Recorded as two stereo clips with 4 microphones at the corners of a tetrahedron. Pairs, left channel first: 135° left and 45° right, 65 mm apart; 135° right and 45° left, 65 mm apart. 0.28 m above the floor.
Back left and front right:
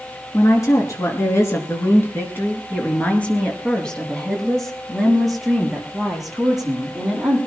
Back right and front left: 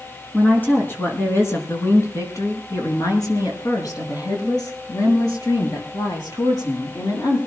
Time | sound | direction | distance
0.3 | a woman speaking | 160° left | 4 m